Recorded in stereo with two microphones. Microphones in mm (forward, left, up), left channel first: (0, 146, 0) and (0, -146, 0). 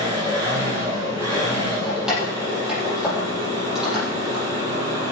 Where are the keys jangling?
Centre (ahead or behind), 6 m.